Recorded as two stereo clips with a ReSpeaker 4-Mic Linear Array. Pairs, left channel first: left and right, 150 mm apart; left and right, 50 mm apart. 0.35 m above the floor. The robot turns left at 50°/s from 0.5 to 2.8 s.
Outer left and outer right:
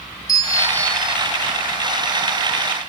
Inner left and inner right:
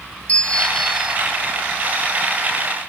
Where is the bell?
25° left, 0.6 m; by 1.2 s 10° right, 0.6 m.